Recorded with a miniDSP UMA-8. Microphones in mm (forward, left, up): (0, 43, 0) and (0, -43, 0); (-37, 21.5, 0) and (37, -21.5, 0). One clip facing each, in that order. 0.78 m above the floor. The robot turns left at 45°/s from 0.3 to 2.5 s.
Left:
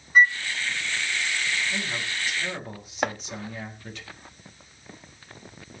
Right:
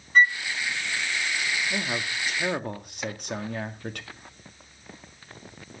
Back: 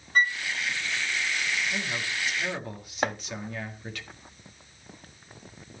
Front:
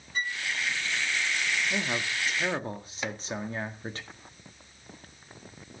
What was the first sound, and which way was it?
A flute, 170° left.